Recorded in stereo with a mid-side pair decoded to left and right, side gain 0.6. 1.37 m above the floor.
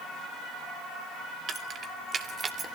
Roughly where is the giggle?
No giggle in this recording.